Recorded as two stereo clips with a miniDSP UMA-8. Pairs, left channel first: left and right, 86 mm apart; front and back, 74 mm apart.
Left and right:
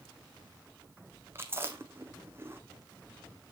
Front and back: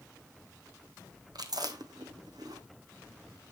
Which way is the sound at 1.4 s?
155° right.